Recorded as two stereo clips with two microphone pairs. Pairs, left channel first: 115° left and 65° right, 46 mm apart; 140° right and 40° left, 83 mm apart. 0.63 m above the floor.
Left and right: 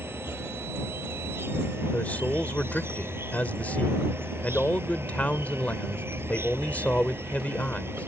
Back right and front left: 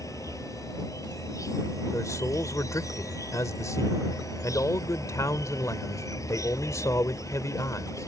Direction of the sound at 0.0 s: 95° right.